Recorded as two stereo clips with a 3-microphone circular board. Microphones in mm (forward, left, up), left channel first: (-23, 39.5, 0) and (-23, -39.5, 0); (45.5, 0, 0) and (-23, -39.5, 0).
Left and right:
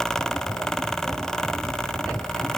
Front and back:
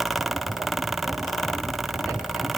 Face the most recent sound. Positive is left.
No sound to turn to.